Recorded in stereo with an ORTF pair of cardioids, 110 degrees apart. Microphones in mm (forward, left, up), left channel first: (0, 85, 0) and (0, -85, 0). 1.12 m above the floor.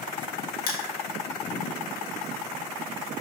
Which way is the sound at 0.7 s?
60° left.